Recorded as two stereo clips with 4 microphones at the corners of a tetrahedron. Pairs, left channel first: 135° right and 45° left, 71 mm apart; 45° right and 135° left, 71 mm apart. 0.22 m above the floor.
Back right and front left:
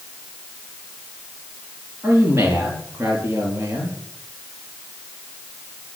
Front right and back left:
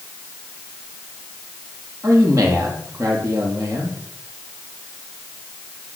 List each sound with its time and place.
2.0 s a man speaking: 95° left, 5.5 m